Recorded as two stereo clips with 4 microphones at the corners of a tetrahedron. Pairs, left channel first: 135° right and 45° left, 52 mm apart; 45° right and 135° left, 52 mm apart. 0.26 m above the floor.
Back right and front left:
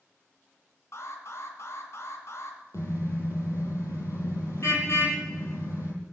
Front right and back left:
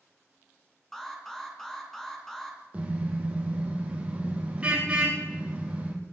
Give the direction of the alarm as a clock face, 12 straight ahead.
4 o'clock.